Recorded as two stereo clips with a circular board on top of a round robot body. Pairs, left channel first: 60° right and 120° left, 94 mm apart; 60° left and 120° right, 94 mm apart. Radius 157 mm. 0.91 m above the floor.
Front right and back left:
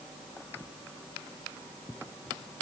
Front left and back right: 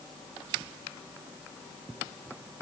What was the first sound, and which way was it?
Only background noise.